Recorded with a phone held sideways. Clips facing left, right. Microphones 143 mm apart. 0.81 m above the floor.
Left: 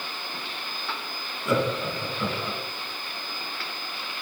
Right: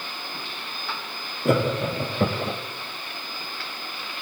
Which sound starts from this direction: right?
Laughter, at 1.4 s.